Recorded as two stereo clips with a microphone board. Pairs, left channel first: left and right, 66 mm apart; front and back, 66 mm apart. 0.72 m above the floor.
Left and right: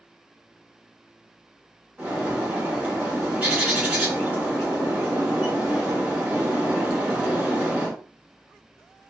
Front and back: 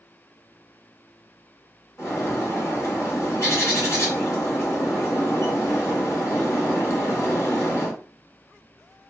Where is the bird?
30° right, 1.7 m.